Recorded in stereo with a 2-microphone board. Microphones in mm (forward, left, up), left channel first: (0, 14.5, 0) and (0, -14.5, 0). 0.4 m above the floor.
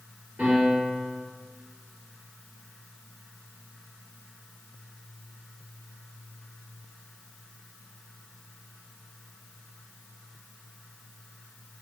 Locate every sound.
0.4 s a piano: 85° right, 2.0 m